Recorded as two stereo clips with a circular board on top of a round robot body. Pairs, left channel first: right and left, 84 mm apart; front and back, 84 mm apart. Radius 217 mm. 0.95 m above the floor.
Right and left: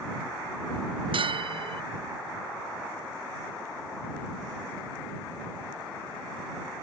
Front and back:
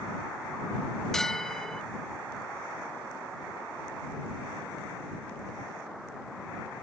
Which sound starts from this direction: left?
A bell, at 1.1 s.